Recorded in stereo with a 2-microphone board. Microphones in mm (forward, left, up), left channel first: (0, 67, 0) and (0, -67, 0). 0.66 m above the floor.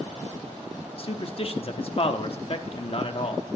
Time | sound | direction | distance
1.0 | a man speaking | 45° left (ahead or behind) | 0.9 m